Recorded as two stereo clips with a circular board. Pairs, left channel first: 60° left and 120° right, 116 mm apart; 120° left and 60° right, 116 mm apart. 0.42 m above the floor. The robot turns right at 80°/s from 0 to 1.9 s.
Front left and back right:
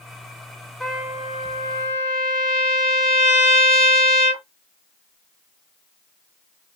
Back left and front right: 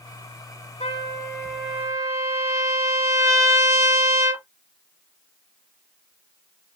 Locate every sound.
0.8 s a trumpet: 145° left, 1.5 m; by 4.4 s 125° right, 1.5 m